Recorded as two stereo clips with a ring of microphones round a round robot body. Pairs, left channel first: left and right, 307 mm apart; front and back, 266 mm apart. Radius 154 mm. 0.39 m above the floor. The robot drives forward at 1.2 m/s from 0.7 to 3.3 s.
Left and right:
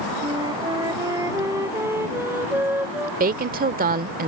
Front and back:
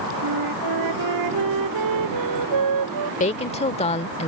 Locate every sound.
0.2 s a flute: 170° right; by 3.1 s 175° right
3.2 s a woman speaking: 45° right; by 4.3 s 50° right